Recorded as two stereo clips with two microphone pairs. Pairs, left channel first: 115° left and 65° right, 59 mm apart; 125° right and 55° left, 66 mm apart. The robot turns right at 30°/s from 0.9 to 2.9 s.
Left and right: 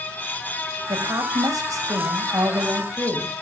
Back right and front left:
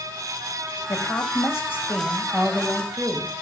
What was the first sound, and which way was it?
A woman speaking, 90° right.